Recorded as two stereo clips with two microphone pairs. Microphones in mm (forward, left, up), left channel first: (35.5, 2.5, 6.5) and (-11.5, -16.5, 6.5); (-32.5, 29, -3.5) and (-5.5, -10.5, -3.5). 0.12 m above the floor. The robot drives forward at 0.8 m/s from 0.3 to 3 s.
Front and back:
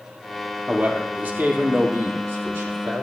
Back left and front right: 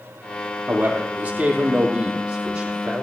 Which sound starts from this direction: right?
A man speaking, at 0.7 s.